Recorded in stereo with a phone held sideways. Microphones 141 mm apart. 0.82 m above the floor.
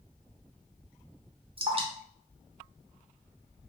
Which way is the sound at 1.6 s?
40° right (ahead or behind).